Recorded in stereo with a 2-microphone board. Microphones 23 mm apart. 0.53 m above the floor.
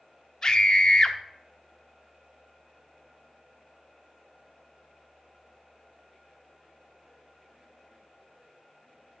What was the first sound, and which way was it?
A scream, 35° left (ahead or behind).